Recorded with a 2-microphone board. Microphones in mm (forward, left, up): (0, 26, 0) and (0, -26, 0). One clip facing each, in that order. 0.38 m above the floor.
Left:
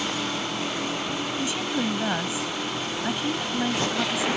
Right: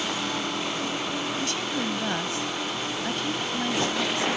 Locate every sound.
1.4 s a woman speaking: 10° left (ahead or behind)